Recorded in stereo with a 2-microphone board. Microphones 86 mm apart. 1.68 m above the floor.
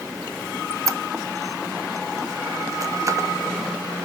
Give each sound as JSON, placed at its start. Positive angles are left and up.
{"t": 0.7, "sound": "a squeak", "side_deg": -40, "distance_m": 0.9}